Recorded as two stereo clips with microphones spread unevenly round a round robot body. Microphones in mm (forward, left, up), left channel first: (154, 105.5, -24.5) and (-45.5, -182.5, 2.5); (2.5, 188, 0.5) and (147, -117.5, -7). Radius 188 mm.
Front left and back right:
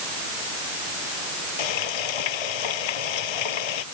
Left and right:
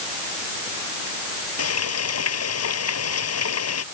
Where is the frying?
70° left.